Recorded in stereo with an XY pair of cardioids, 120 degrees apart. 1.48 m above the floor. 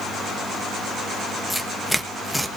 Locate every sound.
1.5 s tearing paper: straight ahead, 1.3 m